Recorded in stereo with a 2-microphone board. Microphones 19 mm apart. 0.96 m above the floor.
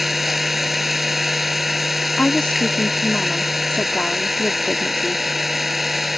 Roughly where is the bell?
No bell in this recording.